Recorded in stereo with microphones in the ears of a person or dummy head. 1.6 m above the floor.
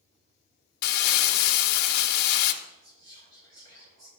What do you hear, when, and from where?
0.8 s crumpling: 60° left (ahead or behind), 0.7 m
2.6 s whispering: 75° right (ahead or behind), 1.8 m